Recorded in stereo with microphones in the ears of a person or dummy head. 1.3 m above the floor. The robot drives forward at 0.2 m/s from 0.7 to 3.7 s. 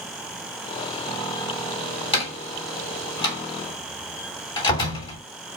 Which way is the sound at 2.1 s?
25° left (ahead or behind).